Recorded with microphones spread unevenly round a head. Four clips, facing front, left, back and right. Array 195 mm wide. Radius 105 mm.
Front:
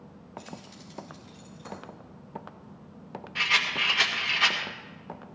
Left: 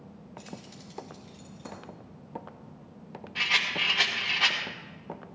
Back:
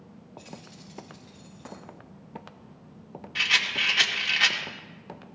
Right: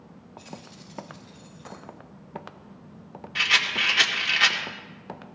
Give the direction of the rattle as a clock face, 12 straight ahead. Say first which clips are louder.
Right 4 dB, front 1 dB; 4 o'clock.